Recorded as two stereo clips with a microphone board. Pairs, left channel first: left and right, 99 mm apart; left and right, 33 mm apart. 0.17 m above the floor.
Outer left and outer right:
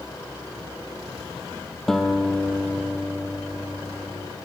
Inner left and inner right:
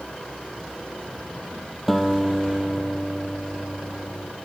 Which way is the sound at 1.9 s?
5° left (ahead or behind).